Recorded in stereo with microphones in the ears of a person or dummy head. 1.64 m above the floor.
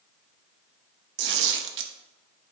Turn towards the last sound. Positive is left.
turn(degrees=-65)  # may be behind; listen again after turning